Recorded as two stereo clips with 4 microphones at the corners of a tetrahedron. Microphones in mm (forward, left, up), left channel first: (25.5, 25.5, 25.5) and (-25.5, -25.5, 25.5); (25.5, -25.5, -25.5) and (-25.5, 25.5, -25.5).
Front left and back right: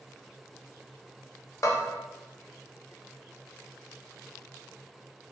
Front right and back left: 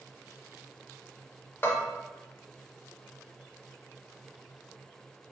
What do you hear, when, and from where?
1.6 s a bell: 15° left, 0.6 m